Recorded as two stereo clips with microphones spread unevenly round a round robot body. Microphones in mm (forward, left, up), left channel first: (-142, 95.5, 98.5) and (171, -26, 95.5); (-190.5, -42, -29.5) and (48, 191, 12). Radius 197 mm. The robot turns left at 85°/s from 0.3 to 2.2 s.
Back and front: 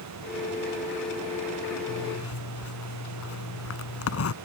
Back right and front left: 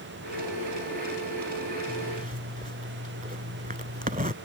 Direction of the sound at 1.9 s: 140° left.